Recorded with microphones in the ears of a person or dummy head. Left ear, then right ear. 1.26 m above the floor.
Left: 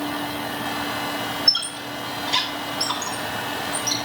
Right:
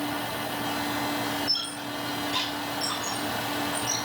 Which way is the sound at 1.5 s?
80° left.